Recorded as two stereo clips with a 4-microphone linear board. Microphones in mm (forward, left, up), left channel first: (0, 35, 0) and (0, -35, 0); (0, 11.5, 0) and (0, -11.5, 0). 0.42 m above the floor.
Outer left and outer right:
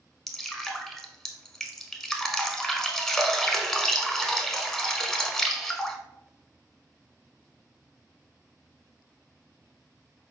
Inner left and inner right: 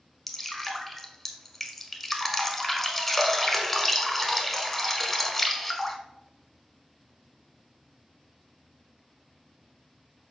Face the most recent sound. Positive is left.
turn(degrees=10)  # may be behind; listen again after turning